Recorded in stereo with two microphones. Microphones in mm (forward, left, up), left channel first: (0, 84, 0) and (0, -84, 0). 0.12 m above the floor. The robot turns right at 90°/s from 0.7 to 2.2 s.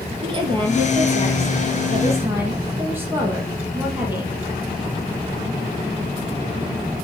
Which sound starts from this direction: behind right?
A woman speaking, at 0.2 s.